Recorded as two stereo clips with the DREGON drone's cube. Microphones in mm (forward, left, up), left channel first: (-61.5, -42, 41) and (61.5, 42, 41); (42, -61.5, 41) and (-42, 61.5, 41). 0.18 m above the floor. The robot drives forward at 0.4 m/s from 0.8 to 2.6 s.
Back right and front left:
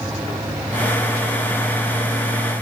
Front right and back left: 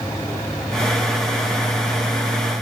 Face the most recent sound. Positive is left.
No sound to turn to.